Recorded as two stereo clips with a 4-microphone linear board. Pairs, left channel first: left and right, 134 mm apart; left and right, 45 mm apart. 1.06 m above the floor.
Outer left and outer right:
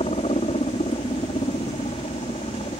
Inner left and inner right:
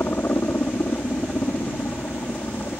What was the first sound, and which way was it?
A helicopter, 55° left (ahead or behind).